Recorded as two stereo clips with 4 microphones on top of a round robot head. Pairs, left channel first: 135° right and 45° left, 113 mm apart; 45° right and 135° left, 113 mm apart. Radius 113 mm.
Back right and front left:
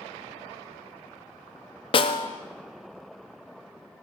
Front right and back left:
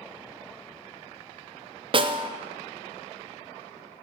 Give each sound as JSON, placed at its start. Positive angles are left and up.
{"t": 1.9, "sound": "a snare drum", "azimuth_deg": 180, "distance_m": 0.7}